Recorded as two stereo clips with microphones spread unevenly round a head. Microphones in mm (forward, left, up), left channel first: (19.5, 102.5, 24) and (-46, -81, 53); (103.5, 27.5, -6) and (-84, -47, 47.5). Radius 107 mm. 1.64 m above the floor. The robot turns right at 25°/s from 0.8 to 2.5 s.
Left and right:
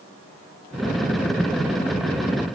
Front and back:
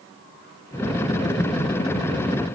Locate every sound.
Only background noise.